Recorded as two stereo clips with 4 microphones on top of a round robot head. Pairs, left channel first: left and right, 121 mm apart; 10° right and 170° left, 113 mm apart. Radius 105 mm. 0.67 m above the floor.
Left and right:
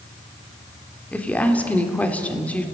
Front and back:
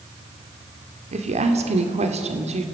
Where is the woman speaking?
170° left, 2.5 m.